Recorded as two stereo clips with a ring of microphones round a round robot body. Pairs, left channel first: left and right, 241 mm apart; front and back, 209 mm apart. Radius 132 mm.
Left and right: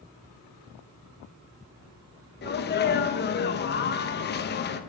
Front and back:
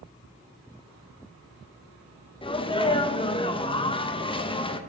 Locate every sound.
2.4 s a sneeze: 60° left, 0.7 m